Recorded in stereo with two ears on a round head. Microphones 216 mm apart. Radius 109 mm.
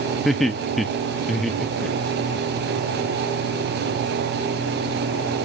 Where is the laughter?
Centre (ahead or behind), 0.7 m.